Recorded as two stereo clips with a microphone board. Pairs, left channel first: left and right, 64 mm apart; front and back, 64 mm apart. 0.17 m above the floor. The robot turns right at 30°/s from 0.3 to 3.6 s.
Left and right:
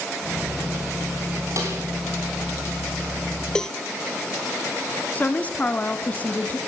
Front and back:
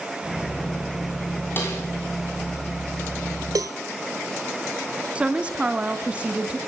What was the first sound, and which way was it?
A snare drum, 55° right.